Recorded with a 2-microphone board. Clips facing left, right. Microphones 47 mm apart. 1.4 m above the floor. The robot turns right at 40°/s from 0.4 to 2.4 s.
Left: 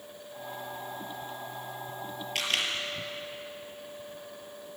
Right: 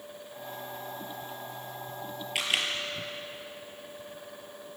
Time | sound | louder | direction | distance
2.4 | a camera shutter | right 1 dB | 15° right (ahead or behind) | 5 m